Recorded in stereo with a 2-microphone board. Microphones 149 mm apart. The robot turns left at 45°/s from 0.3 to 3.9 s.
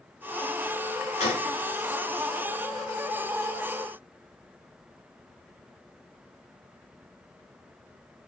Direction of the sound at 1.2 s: 45° left (ahead or behind).